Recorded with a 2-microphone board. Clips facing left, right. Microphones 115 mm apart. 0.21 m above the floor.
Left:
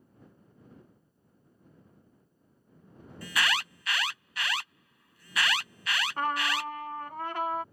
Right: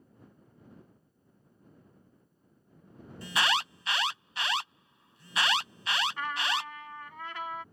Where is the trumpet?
45° left (ahead or behind).